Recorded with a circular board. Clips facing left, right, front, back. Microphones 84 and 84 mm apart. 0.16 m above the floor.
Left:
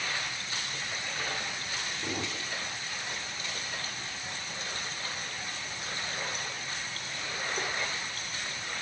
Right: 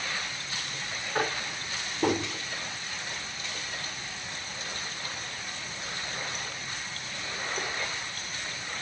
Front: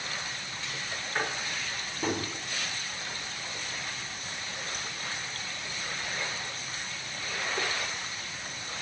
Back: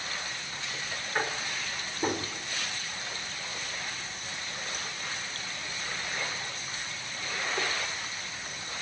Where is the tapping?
95° right, 5.5 m.